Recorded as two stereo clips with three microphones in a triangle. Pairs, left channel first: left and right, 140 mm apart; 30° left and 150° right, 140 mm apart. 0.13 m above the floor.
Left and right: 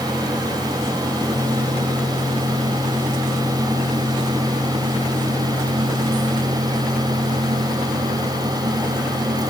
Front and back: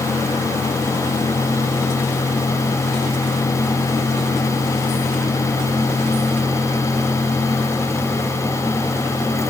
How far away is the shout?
No shout in this recording.